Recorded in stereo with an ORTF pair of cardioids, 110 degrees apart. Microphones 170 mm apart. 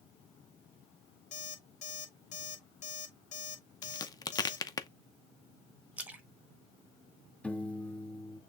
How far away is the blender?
No blender in this recording.